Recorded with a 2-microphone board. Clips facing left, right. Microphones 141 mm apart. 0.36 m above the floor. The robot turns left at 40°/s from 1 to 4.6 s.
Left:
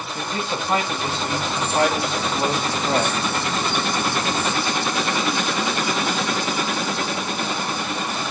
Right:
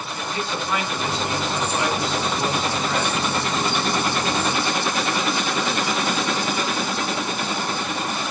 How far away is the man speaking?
About 2 m.